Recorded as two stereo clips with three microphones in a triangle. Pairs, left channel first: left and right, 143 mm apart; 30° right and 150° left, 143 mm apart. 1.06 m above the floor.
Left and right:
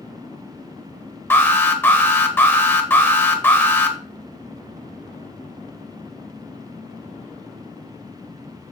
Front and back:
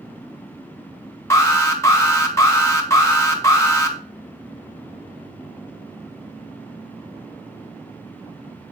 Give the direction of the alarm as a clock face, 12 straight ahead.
11 o'clock.